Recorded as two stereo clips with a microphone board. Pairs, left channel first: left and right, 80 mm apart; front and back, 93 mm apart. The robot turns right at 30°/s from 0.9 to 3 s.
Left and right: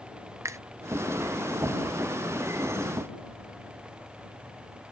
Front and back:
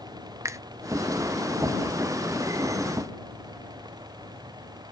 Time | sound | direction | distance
0.5 | a finger snap | 130° right | ?